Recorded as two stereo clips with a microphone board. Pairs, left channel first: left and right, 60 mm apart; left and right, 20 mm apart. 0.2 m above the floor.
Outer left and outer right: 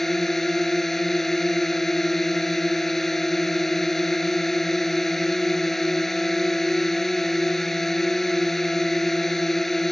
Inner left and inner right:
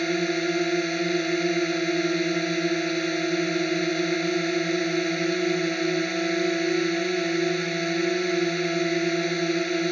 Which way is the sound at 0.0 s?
5° left (ahead or behind).